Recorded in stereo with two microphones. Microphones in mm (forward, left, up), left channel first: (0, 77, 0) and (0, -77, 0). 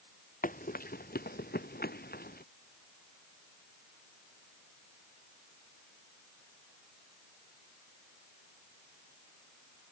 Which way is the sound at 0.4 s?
60° left (ahead or behind).